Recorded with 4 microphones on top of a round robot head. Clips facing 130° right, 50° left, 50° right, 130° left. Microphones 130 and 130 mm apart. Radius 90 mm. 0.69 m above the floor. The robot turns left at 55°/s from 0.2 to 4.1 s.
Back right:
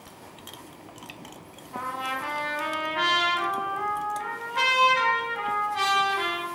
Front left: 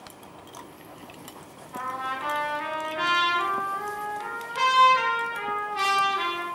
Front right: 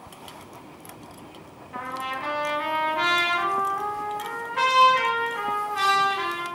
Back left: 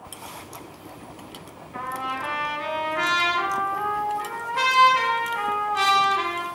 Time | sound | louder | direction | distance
1.7 | a trumpet | even, back left 2 dB | 45° right | 3 m